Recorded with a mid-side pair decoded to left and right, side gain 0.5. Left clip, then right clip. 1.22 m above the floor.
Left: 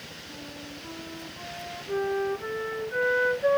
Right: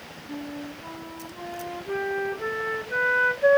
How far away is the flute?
About 1.0 m.